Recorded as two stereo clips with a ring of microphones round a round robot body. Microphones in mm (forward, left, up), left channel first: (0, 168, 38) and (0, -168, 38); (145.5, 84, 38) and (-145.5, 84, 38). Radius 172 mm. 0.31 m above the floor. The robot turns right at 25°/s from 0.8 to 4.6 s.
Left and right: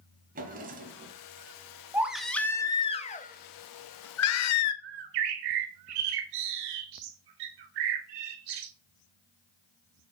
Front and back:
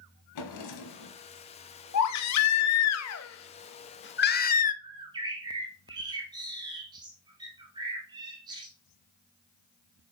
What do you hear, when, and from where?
0.3 s a drawer: 25° right, 1.2 m; by 1.2 s 15° right, 1.2 m
1.9 s a baby crying: 5° right, 0.8 m; by 4.7 s 60° left, 0.8 m
4.8 s a bird: 100° right, 1.0 m